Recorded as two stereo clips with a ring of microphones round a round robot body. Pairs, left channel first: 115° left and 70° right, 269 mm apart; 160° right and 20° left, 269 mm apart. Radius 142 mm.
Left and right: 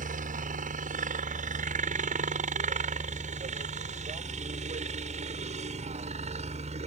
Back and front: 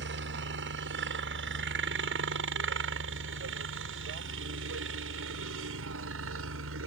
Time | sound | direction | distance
0.0 | a helicopter | 15° right | ?